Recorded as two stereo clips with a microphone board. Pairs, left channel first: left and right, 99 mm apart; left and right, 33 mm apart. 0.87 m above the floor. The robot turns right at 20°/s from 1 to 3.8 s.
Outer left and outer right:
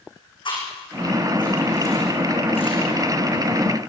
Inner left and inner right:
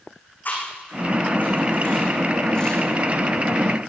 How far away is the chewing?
About 8 m.